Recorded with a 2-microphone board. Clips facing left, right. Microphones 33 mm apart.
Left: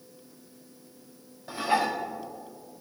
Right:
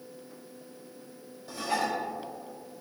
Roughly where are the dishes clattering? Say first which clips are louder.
Left 4 dB; left.